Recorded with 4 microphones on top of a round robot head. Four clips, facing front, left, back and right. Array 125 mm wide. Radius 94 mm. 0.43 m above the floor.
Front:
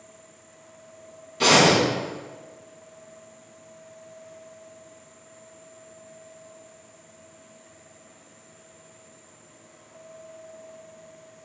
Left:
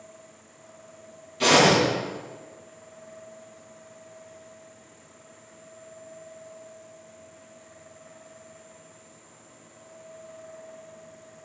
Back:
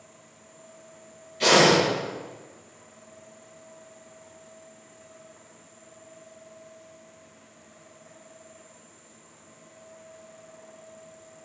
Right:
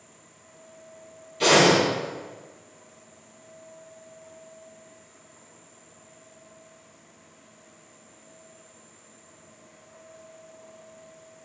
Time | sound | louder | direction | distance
1.4 | breathing | even, even | 5° right | 3 m